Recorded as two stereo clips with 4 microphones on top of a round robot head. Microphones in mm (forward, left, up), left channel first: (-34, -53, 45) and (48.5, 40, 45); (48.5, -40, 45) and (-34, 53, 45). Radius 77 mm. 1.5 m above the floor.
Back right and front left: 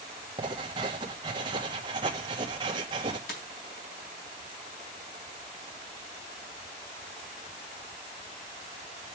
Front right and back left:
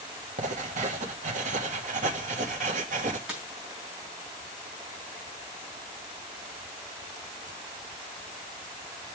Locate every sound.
0.4 s writing: 105° left, 1.8 m
3.3 s a dropped coin: 145° right, 4.5 m